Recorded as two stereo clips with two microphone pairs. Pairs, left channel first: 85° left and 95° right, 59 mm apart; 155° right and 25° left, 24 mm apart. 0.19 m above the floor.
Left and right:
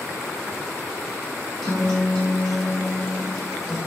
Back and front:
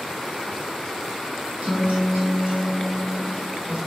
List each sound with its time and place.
1.6 s a guitar: 5° left, 1.8 m